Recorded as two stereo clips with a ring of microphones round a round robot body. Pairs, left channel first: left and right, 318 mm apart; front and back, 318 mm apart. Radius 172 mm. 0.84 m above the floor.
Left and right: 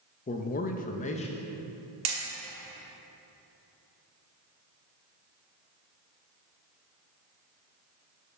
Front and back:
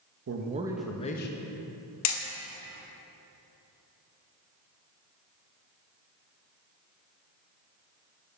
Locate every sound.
0.3 s a man speaking: 145° left, 0.6 m; by 1.4 s 25° left, 0.6 m
2.0 s hammering: 40° right, 1.0 m